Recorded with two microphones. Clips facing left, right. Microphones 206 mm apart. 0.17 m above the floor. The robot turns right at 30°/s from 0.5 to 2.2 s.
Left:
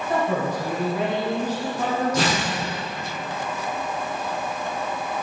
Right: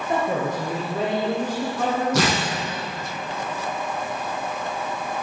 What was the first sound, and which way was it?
A man speaking, 155° right.